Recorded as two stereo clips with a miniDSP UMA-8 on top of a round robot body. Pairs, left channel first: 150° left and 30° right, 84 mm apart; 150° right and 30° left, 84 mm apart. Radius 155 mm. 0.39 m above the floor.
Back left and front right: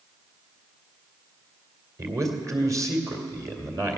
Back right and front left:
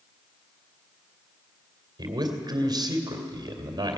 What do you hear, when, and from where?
2.0 s a man speaking: 10° left, 2.5 m